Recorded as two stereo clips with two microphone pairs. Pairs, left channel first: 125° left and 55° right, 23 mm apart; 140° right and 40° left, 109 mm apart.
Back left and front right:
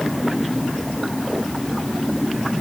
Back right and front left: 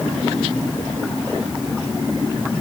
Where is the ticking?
No ticking in this recording.